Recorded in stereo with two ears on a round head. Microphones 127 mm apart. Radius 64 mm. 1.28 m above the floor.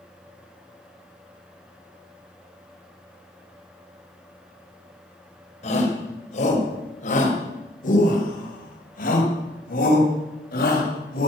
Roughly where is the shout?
Left.